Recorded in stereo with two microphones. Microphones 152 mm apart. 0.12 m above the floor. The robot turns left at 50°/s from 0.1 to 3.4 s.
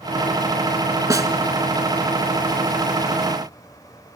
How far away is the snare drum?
About 0.8 m.